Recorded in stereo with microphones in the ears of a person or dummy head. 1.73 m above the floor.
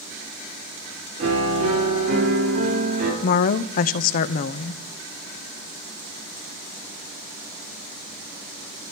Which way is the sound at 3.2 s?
50° left (ahead or behind).